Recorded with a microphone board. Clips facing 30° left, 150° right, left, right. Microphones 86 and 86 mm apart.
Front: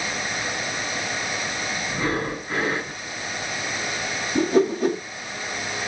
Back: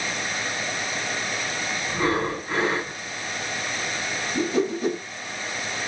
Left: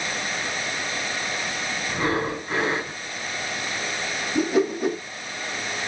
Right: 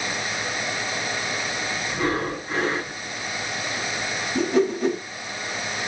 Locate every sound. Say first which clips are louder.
1.9 s breathing: back 3 dB, left 1 dB; 155° left, 2.5 m
4.3 s a whoosh: front 5 dB, right 1 dB; 10° left, 1.2 m